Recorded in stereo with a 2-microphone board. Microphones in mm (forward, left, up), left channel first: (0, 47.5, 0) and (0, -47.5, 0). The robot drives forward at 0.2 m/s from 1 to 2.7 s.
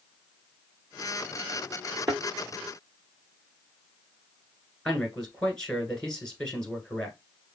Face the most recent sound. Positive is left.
turn(degrees=10)  # may be behind; listen again after turning